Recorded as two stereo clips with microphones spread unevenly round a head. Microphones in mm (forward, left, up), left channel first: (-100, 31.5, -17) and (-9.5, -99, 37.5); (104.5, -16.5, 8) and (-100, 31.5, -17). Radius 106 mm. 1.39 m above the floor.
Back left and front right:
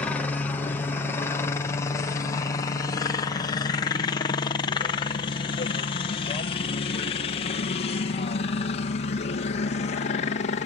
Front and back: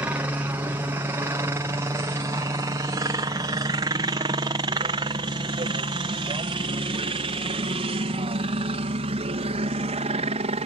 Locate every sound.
0.0 s a helicopter: 105° left; by 10.7 s 110° left